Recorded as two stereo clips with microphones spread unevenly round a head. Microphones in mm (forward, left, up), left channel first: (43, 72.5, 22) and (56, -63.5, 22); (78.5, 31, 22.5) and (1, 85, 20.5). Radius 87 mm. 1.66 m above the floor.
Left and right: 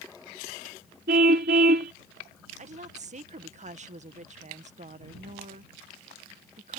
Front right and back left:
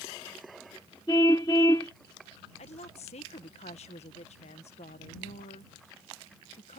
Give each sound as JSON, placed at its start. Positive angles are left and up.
{"t": 1.1, "sound": "a car horn", "azimuth_deg": -105}
{"t": 2.6, "sound": "a woman speaking", "azimuth_deg": -50}